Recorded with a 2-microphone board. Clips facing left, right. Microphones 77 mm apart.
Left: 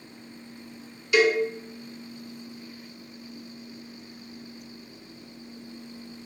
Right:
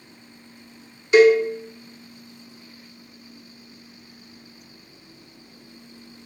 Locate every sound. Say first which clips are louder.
1.1 s a cowbell: right 8 dB; 30° right (ahead or behind), 0.9 m